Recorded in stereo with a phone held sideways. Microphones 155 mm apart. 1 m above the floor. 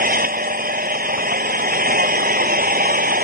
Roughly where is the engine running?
Right.